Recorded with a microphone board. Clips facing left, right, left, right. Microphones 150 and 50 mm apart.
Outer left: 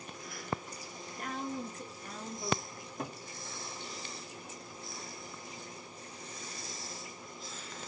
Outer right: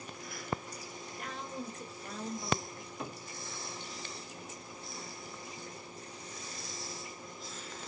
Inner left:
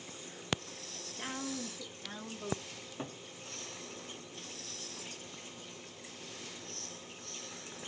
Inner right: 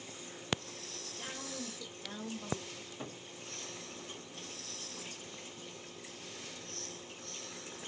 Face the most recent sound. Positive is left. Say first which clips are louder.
# outer left 1 dB, inner left 1 dB
turn(degrees=40)  # may be behind; listen again after turning